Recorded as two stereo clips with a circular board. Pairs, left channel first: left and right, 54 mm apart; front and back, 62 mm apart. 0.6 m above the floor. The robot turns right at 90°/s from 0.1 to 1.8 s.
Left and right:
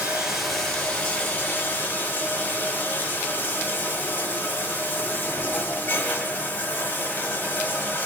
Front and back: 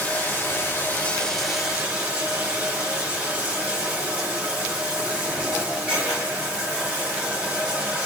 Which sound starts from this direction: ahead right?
Running water, at 0.0 s.